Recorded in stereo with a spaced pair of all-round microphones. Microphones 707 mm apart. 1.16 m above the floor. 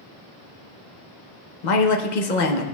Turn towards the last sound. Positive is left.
turn(degrees=85)